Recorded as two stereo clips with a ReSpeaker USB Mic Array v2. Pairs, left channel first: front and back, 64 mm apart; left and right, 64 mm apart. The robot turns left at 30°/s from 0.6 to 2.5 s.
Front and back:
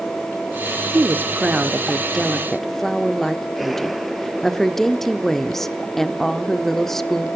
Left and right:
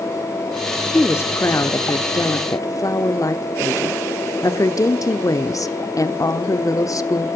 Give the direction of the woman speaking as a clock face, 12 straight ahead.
8 o'clock.